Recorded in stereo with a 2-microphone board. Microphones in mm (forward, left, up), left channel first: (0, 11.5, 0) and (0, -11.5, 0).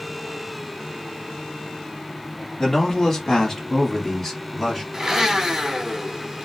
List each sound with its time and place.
2.6 s a man speaking: 20° left (ahead or behind), 1.0 m; by 4.8 s centre (ahead or behind), 1.8 m
4.9 s a blender: 25° right (ahead or behind), 0.9 m